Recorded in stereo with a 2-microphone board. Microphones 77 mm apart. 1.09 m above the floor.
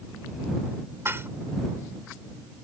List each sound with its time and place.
1.1 s dishes clattering: 35° right (ahead or behind)